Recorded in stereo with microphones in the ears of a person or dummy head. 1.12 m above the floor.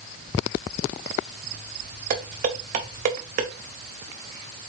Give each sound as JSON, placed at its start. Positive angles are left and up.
{"t": 2.1, "sound": "dishes clattering", "side_deg": -35, "distance_m": 0.7}